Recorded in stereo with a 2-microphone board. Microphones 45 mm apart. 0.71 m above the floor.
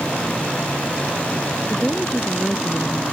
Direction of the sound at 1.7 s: 15° left (ahead or behind).